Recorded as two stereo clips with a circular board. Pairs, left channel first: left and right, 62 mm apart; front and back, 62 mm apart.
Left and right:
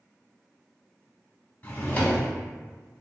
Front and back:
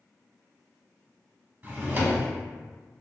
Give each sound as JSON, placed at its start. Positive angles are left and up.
{"t": 1.6, "sound": "a drawer", "azimuth_deg": 140, "distance_m": 0.8}